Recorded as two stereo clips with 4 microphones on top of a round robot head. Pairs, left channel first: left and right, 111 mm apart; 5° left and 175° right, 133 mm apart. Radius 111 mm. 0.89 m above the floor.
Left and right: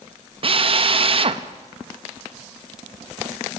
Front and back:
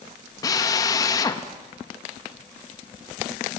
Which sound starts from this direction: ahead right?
A drill, at 0.4 s.